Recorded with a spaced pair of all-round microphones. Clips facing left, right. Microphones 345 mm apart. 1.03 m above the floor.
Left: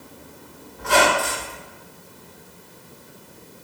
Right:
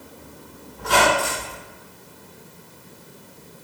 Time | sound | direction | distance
0.8 | a squeak | 45° right (ahead or behind) | 1.9 m